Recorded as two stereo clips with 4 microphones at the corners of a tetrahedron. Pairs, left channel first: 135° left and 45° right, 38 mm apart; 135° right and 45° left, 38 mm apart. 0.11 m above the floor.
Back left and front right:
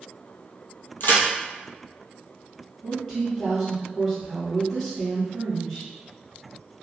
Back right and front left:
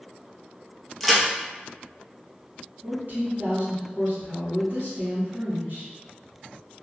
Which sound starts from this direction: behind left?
A crack, at 1.0 s.